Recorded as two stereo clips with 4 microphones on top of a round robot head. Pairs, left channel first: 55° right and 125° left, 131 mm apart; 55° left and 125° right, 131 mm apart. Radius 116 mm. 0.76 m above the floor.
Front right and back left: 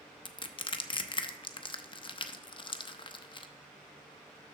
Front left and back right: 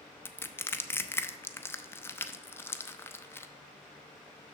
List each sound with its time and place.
0.2 s crushing: 15° right, 0.6 m